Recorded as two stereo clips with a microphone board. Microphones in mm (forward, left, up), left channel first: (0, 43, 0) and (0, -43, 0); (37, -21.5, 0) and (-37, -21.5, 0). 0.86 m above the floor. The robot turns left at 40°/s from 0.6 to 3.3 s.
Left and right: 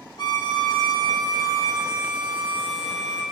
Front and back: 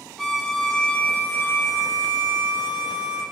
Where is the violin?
85° left, 0.5 m; by 3.2 s 20° right, 0.5 m.